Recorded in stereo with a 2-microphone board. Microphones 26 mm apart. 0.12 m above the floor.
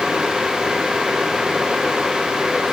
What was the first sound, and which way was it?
Only background noise.